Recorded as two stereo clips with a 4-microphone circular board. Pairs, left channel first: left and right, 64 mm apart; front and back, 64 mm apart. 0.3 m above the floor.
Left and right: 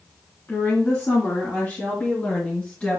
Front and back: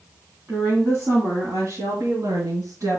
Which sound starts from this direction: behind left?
A woman speaking, at 0.5 s.